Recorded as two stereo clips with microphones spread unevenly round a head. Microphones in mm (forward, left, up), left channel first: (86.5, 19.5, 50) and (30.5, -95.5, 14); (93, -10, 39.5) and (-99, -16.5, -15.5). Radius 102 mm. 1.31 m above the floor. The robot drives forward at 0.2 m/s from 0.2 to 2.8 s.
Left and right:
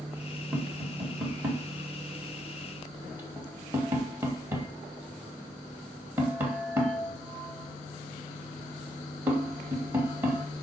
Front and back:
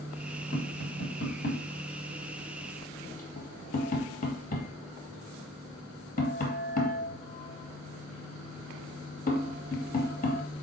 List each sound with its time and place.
0.5 s tapping: 40° right, 3.5 m; by 10.4 s 45° right, 3 m